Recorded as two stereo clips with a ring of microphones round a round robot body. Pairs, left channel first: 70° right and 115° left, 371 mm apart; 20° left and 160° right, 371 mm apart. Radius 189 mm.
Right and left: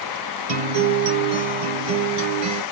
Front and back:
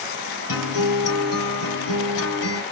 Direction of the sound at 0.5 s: 70° left.